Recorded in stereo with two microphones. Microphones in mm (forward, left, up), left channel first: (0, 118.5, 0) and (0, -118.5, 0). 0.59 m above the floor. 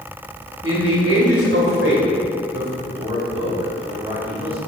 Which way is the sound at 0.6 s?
75° right (ahead or behind).